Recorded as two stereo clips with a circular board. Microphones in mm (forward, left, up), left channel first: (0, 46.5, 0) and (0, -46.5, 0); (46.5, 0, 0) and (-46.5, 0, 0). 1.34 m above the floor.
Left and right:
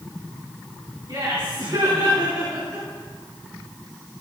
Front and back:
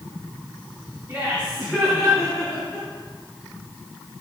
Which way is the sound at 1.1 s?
115° right.